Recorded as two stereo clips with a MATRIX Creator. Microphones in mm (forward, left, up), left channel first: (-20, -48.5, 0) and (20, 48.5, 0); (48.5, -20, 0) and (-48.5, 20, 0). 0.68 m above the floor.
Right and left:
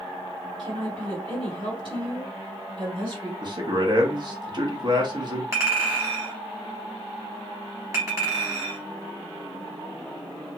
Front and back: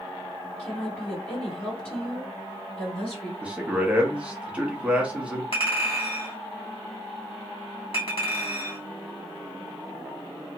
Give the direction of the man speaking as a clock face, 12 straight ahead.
9 o'clock.